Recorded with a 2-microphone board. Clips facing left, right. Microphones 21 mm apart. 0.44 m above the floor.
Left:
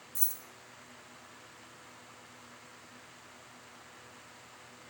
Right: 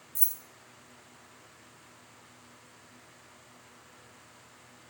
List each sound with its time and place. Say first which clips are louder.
0.1 s keys jangling: right 1 dB; 10° left (ahead or behind), 0.6 m